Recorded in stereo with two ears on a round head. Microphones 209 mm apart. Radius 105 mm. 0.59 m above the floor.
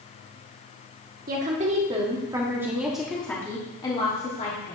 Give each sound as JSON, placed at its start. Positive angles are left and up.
{"t": 1.3, "sound": "a woman speaking", "side_deg": -35, "distance_m": 1.5}